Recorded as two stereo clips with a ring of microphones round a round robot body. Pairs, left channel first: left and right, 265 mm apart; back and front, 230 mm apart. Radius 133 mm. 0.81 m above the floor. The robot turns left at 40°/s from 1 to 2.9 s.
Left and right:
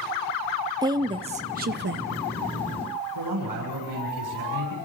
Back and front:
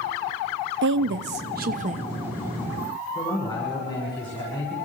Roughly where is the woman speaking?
Ahead.